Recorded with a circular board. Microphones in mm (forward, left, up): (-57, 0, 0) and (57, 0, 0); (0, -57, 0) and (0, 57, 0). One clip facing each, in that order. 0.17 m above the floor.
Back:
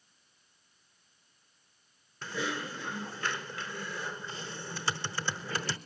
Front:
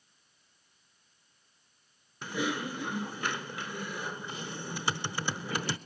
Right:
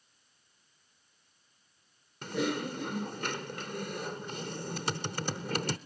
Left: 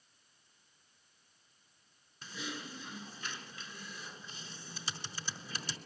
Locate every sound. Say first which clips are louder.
2.2 s typing on a keyboard: front 3 dB, right 13 dB; 75° right, 0.8 m